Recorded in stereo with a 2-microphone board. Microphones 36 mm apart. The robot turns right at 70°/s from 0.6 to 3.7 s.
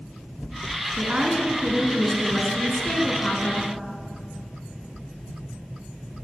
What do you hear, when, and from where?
1.0 s a woman speaking: 90° right, 1.9 m; by 3.7 s 100° left, 1.9 m